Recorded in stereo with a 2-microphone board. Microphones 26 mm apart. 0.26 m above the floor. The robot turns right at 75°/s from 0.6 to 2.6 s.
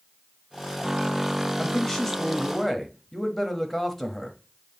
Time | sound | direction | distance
1.6 | a man speaking | 25° left (ahead or behind) | 1.1 m